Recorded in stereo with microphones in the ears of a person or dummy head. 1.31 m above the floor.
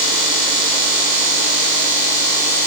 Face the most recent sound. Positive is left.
No sound to turn to.